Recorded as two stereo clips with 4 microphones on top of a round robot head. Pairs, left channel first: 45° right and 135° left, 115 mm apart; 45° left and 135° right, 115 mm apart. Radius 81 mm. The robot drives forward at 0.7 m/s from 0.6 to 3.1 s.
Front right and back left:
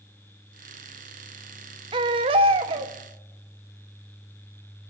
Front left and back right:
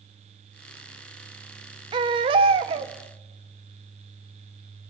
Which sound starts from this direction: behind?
A baby crying, at 1.9 s.